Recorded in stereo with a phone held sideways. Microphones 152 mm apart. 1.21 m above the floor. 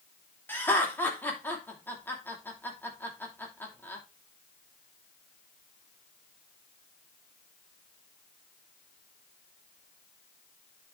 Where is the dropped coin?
I don't hear a dropped coin.